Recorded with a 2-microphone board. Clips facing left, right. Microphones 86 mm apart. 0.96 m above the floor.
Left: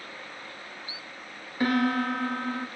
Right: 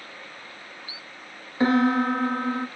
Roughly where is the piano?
Right.